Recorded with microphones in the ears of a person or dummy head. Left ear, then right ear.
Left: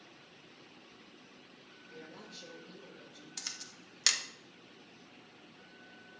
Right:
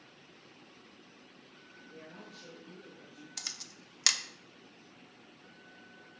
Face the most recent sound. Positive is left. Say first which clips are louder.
# right 2 dB
turn(degrees=-5)  # may be behind; listen again after turning